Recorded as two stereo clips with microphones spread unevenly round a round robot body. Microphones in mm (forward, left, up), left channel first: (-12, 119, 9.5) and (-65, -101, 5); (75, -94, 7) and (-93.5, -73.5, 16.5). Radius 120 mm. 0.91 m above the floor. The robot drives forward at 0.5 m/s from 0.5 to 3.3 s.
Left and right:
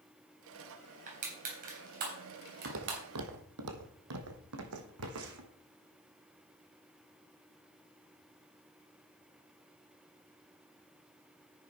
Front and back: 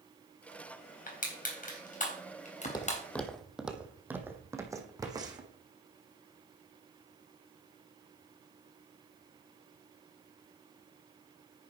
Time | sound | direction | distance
1.1 | crushing | 45° right | 4 m
2.6 | footsteps | 70° right | 1.8 m